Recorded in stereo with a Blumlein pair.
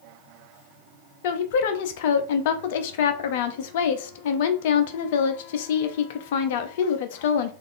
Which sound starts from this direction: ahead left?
A woman speaking, at 1.2 s.